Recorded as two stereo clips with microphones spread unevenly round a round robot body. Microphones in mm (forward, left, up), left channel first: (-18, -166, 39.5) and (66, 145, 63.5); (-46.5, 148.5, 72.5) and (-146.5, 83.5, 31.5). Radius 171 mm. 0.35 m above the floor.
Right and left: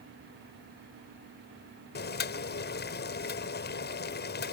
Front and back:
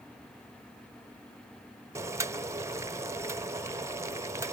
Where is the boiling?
140° right.